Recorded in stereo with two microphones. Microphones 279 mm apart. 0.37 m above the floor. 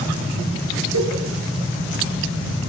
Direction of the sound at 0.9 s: 70° right (ahead or behind).